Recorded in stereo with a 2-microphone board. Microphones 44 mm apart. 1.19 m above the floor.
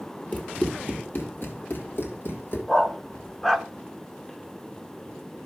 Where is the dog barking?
5° left (ahead or behind), 0.9 m.